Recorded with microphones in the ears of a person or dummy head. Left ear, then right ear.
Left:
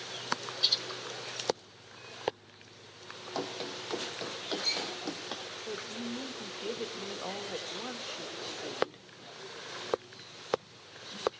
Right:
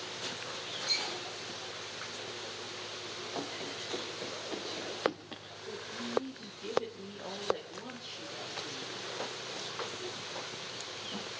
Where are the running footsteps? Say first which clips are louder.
Left 5 dB; 25° left (ahead or behind), 2.5 m; by 5.5 s 50° left (ahead or behind), 3 m.